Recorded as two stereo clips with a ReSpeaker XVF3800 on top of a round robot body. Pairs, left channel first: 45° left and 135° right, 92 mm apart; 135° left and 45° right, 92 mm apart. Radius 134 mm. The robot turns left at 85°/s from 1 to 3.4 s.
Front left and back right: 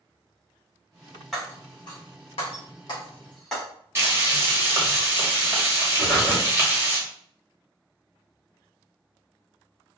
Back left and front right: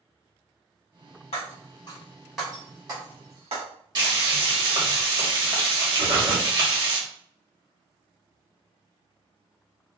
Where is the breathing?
40° right, 1.5 m.